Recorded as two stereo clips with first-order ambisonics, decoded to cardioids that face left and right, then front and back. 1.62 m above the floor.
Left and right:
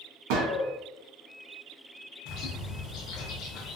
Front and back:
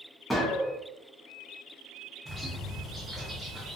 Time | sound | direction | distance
0.3 | a gunshot | 85° right | 0.6 m
2.2 | a bird | 100° left | 0.6 m